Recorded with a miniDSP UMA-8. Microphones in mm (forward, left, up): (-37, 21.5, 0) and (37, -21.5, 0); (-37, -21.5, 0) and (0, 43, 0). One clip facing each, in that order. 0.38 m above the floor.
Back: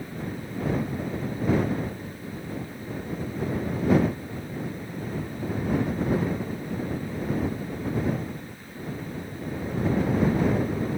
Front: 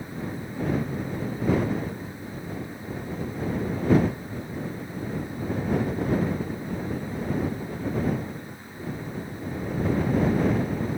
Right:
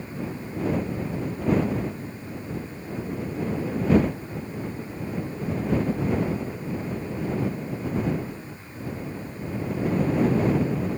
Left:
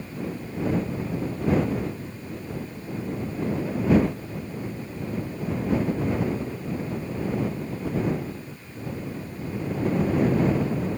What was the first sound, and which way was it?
Only background noise.